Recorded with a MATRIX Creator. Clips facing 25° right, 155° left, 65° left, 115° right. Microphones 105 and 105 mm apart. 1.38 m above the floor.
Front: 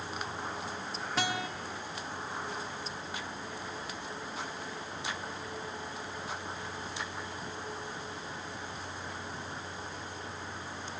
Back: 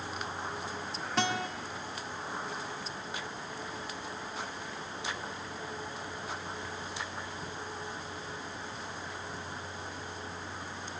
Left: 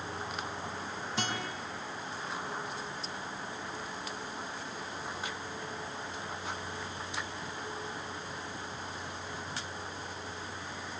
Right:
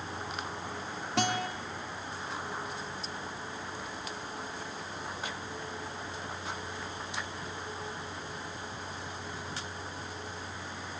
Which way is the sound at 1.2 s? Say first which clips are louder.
Back 2 dB, right 7 dB; 110° right.